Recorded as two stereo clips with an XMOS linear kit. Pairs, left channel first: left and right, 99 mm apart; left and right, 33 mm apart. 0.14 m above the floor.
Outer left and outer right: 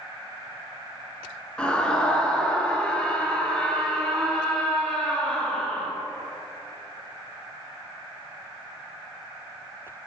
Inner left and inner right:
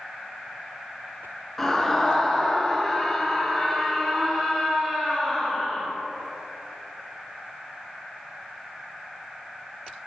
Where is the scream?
10° left (ahead or behind), 1.8 m.